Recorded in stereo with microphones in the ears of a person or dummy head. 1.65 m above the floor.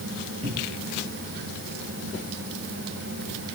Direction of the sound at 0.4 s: 35° right (ahead or behind).